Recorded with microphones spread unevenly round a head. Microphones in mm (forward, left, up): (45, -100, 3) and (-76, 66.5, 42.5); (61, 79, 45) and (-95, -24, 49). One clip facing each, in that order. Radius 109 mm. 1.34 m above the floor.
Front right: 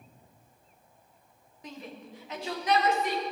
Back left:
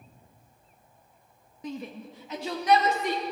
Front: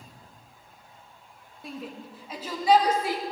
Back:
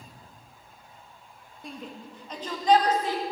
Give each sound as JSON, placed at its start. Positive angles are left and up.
{"t": 1.6, "sound": "a shout", "azimuth_deg": 120, "distance_m": 2.0}